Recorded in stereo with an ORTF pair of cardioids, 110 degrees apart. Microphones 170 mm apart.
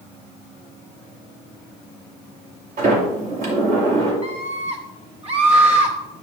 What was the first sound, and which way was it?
A sliding door, 55° right.